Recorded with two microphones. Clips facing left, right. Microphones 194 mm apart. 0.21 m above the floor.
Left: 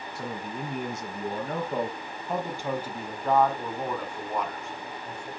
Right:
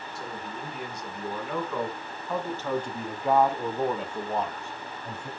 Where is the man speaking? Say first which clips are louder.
Left 4 dB; 60° left (ahead or behind), 2.5 m; by 5.3 s 40° right (ahead or behind), 2.5 m.